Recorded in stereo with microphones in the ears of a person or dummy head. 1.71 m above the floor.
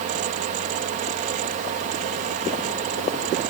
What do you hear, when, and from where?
0.0 s a fan: 50° right (ahead or behind)